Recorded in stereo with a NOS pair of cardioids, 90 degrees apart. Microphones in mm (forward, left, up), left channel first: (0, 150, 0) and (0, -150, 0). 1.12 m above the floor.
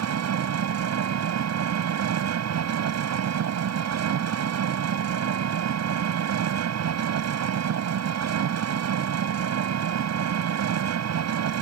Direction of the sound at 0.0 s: 60° right.